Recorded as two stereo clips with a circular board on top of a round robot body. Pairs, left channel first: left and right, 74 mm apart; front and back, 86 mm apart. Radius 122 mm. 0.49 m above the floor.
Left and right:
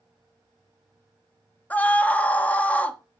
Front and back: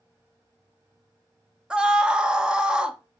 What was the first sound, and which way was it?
A scream, 115° left.